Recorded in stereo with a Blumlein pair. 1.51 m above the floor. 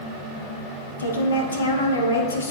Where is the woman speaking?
70° left, 1.6 m.